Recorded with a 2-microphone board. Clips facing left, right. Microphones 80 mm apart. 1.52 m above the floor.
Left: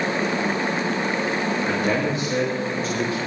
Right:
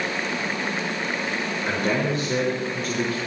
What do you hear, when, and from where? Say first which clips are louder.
1.6 s a man speaking: right 2 dB; 65° right (ahead or behind), 5.5 m; by 3.2 s 55° right (ahead or behind), 4.5 m